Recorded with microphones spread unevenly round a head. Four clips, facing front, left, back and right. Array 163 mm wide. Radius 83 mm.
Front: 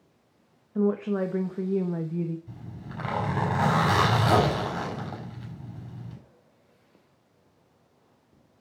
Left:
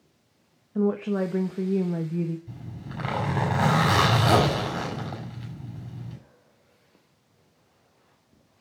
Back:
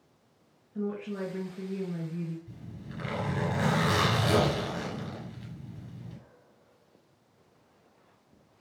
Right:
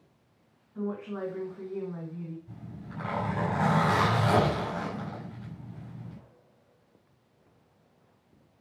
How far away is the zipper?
About 6.5 m.